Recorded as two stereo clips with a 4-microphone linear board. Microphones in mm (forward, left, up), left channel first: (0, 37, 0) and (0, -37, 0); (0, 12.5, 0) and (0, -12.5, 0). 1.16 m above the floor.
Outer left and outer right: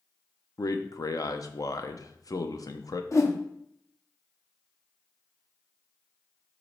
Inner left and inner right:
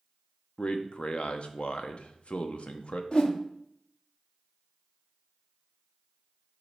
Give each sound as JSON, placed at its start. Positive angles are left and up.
{"t": 0.6, "sound": "a man speaking", "side_deg": 50, "distance_m": 0.7}
{"t": 3.1, "sound": "a whoosh", "side_deg": 45, "distance_m": 0.8}